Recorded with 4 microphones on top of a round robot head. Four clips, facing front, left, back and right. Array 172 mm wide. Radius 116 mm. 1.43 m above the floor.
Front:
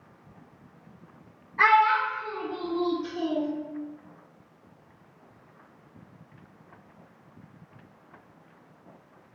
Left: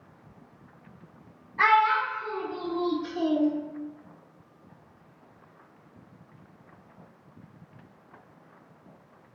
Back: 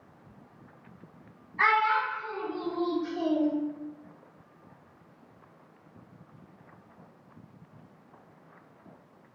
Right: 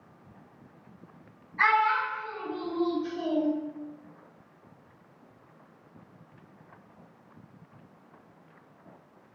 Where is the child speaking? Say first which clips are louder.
Left 3 dB, front 4 dB; 30° left, 0.9 m; by 3.5 s 90° left, 1.2 m.